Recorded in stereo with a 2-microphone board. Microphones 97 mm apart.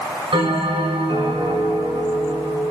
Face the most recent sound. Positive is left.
turn(degrees=-60)  # may be behind; listen again after turning